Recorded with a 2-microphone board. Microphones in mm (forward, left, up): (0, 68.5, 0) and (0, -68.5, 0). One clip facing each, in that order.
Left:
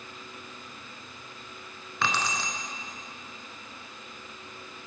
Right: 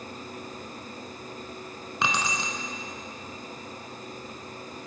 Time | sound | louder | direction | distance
2.0 | keys jangling | right 1 dB | 20° right (ahead or behind) | 0.7 m